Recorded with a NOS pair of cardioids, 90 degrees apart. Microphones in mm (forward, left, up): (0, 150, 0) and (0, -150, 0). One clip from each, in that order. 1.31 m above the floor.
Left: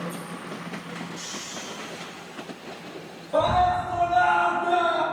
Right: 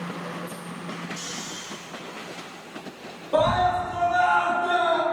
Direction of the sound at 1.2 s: 60° right.